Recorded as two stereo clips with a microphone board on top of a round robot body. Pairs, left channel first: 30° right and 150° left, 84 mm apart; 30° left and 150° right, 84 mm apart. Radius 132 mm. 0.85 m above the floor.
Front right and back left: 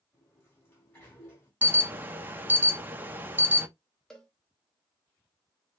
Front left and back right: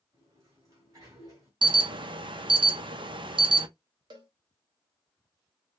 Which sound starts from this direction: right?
A sliding door, at 0.1 s.